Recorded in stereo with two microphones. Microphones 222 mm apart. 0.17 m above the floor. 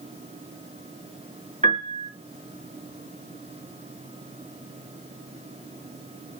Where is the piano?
30° right (ahead or behind), 1.8 m.